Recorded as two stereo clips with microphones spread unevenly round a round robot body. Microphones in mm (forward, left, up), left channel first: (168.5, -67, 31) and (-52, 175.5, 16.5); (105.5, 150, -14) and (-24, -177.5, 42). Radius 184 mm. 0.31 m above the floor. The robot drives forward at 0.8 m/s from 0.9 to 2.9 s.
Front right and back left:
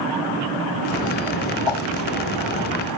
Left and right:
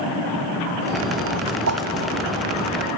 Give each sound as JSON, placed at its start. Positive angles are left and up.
{"t": 1.7, "sound": "a whoosh", "azimuth_deg": -65}